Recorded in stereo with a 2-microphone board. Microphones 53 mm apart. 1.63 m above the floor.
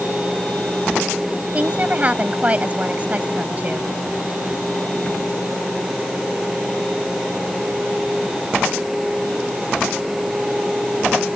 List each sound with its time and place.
1.5 s a woman speaking: 25° right (ahead or behind)